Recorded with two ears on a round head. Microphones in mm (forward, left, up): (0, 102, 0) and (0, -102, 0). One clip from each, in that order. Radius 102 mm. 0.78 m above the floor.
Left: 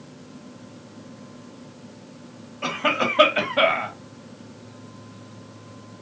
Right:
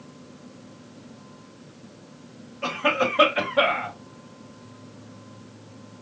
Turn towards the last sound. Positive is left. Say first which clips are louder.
# even
turn(degrees=15)  # may be behind; listen again after turning